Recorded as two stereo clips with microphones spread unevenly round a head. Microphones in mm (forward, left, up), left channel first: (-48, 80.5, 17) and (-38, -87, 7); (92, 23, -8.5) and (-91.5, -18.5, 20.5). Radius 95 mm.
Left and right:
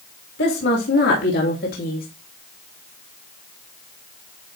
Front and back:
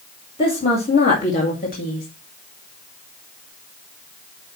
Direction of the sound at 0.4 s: 75° left.